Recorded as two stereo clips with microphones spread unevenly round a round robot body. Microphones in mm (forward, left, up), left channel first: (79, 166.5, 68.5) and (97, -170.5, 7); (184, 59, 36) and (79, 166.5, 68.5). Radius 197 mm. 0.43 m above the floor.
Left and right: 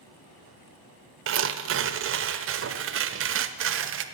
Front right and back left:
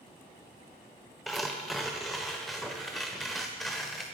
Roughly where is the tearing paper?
Behind right.